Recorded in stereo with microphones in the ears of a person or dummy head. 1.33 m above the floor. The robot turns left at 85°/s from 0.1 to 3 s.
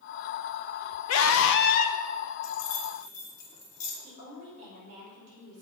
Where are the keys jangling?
80° left, 2 m; by 3.9 s 45° left (ahead or behind), 2 m.